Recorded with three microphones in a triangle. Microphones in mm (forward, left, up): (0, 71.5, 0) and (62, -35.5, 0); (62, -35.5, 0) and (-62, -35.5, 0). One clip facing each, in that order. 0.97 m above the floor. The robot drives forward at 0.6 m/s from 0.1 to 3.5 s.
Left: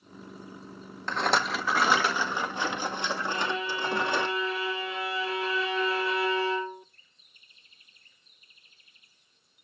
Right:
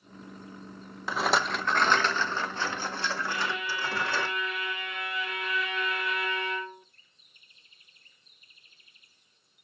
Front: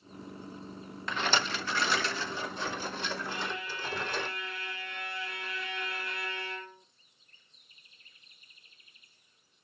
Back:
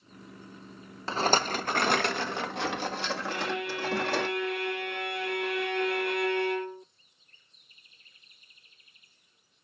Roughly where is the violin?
Behind.